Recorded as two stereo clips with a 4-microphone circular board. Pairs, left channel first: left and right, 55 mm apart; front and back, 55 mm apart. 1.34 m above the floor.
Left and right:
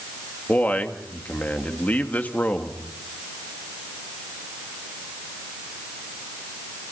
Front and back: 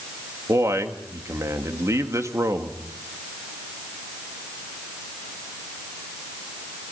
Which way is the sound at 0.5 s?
150° left.